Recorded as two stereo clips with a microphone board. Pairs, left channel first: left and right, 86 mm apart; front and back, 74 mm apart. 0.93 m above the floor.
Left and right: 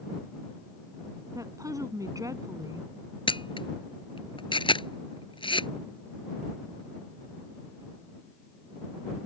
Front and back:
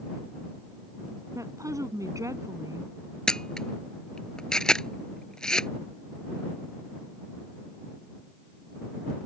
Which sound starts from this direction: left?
A camera shutter, at 3.3 s.